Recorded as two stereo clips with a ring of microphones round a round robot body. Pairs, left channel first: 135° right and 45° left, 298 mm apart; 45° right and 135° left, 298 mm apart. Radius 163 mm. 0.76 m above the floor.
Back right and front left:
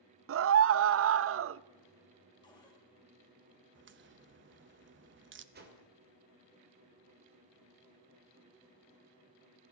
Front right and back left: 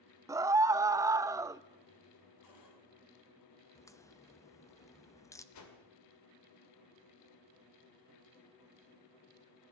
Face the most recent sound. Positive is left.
turn(degrees=-15)